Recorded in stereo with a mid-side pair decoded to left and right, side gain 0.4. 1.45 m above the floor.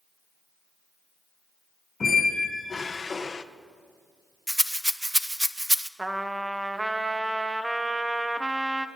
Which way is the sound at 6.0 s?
15° right.